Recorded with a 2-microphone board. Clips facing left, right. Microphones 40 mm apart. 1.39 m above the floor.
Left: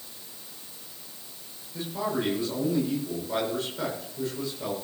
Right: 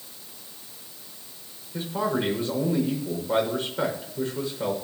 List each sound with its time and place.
1.7 s a man speaking: 35° right (ahead or behind), 6.5 m